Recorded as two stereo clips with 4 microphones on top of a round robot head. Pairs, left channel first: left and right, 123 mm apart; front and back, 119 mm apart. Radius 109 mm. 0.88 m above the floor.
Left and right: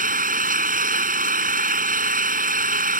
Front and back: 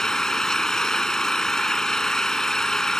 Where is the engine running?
85° right.